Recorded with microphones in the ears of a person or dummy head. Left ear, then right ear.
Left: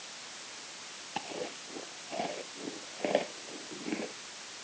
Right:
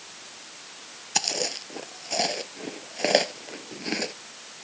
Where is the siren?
I don't hear a siren.